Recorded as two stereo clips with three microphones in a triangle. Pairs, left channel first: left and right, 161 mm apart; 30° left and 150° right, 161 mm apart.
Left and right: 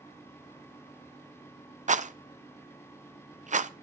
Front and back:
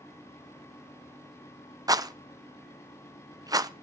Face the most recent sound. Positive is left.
turn(degrees=-90)